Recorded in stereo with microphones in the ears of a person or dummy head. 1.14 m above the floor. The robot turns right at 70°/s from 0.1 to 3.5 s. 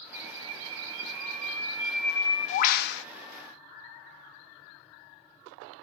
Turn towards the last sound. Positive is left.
turn(degrees=110)